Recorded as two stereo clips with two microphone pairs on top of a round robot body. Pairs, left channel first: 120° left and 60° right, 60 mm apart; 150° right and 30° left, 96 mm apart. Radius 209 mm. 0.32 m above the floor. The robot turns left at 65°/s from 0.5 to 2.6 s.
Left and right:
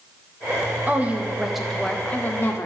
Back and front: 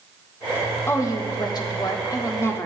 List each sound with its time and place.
0.9 s a woman speaking: 100° right, 1.5 m; by 2.7 s 150° left, 1.5 m